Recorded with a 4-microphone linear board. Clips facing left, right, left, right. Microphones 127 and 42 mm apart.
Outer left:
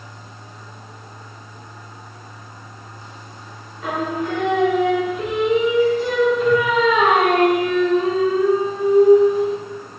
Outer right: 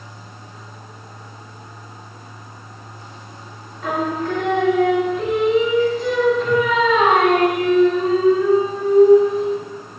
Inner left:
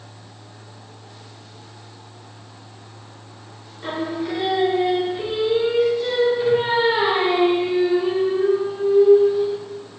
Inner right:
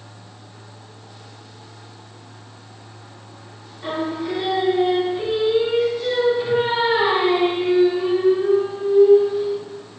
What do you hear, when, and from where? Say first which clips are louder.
3.8 s singing: outer right 1 dB, inner right 1 dB; 5° left (ahead or behind), 1.5 m